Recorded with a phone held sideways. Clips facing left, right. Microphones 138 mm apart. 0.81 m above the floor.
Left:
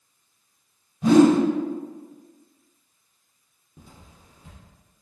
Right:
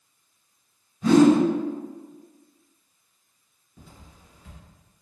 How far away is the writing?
About 1.6 m.